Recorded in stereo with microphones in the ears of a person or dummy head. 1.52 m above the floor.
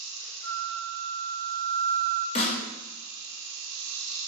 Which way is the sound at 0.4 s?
35° left (ahead or behind).